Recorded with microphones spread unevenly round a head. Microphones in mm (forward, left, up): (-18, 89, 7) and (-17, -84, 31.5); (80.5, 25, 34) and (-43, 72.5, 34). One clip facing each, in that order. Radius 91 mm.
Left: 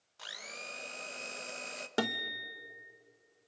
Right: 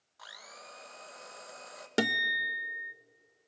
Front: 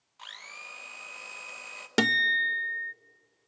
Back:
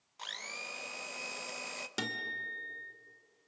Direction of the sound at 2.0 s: 20° right.